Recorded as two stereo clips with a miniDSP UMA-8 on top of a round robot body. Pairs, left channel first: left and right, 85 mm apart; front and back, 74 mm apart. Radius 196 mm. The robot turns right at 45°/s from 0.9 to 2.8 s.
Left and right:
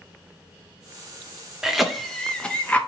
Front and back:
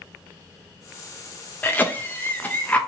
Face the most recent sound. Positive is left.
turn(degrees=40)